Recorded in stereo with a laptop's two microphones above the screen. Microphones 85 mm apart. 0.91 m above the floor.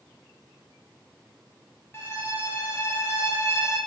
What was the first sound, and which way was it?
A violin, 30° left (ahead or behind).